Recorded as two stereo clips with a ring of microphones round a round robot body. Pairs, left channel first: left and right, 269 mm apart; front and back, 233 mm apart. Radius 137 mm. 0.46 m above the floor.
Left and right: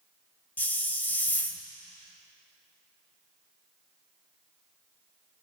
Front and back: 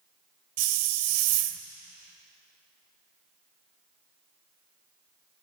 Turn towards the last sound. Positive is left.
turn(degrees=175)